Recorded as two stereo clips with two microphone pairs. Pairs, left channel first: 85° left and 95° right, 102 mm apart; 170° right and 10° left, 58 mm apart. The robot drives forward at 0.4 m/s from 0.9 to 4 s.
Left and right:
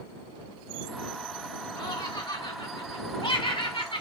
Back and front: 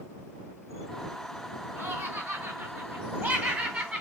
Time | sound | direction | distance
1.8 | laughter | 60° left | 2.5 m